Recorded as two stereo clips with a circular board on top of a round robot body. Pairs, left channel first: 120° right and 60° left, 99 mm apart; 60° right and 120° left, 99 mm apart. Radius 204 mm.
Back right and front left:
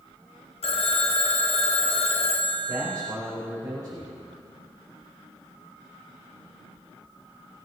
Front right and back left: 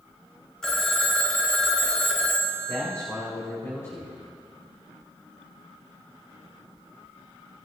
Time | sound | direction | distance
0.6 | a phone ringing | 145° right | 0.8 m
2.7 | a man speaking | 5° left | 3 m